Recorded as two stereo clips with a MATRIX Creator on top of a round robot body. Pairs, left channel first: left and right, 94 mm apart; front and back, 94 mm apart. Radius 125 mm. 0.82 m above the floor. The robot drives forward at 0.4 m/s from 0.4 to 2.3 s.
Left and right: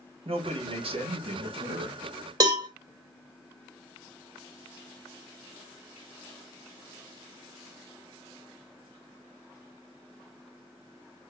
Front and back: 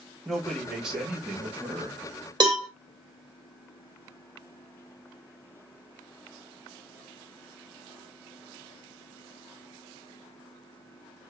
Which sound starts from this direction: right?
A man speaking, at 0.2 s.